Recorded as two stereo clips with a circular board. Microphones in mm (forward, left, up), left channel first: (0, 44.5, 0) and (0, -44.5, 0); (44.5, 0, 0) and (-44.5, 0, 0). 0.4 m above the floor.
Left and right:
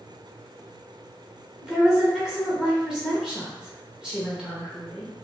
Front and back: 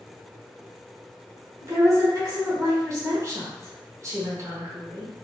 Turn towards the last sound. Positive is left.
turn(degrees=-170)